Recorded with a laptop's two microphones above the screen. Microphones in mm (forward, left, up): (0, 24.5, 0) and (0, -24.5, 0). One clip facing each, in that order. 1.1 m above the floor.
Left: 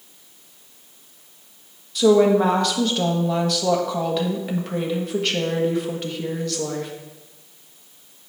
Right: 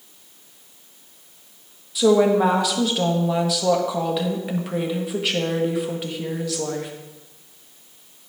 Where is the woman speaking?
10° right (ahead or behind), 1.3 m.